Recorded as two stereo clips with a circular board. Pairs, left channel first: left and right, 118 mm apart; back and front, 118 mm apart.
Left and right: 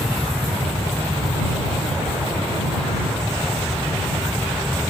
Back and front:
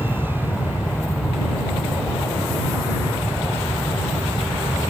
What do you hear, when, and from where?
0.0 s an aircraft: 170° right; by 4.9 s 160° right